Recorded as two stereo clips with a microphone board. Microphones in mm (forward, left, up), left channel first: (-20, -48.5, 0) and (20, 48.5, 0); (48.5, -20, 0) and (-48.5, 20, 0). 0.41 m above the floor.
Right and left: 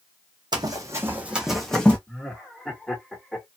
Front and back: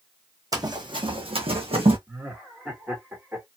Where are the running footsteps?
110° left, 1.1 m; by 2.0 s 170° left, 1.3 m.